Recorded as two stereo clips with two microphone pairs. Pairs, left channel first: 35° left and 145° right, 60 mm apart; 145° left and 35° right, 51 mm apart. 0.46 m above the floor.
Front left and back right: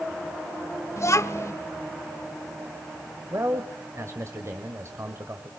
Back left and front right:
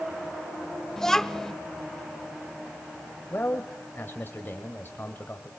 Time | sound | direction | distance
1.0 | a child speaking | 65° left | 1.1 m
3.3 | a man speaking | 170° right | 1.6 m